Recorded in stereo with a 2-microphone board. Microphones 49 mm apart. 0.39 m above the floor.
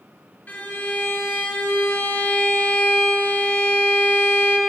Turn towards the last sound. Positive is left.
turn(degrees=40)  # may be behind; listen again after turning